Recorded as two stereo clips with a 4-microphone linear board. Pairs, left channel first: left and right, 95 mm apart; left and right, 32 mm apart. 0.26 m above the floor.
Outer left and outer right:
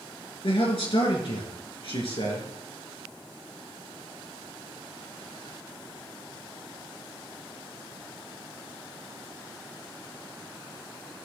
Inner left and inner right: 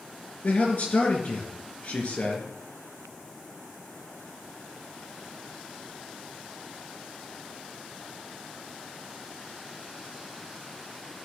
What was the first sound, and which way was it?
A man speaking, 65° left (ahead or behind).